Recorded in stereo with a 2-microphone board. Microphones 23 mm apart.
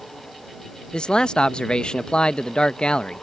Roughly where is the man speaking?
Left.